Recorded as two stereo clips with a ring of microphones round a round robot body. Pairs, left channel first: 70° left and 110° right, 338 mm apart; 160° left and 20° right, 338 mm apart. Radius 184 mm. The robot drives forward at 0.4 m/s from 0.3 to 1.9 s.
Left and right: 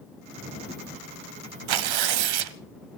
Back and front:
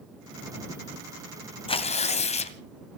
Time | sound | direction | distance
1.7 | tearing paper | 125° right | 1.3 m